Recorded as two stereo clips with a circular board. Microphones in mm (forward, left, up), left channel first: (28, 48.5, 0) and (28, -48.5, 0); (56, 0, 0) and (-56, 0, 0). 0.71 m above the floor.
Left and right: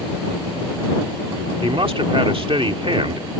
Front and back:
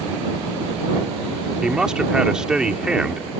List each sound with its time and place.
1.6 s a man speaking: 95° right